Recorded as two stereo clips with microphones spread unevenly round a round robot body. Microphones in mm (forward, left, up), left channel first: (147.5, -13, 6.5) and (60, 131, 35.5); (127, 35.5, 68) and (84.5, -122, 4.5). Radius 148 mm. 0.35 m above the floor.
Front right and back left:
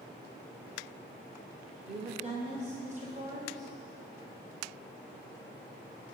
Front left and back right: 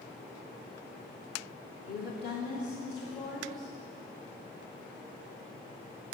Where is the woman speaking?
90° left, 0.9 m; by 3.7 s 75° left, 1.6 m.